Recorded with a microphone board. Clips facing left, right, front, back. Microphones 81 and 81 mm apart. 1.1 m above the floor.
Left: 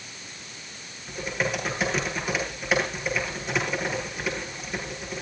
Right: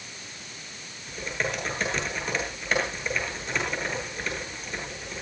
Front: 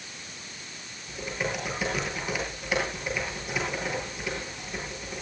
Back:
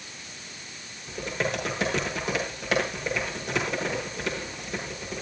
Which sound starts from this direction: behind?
Typing on a keyboard, at 1.1 s.